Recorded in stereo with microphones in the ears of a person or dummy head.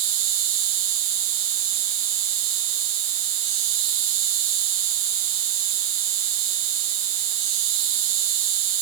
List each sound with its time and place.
0.0 s an insect: 65° right (ahead or behind), 1.8 m